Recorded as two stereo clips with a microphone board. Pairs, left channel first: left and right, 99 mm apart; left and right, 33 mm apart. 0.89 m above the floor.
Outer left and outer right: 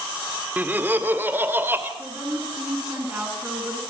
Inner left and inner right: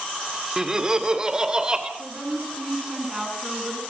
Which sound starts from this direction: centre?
Laughter, at 0.6 s.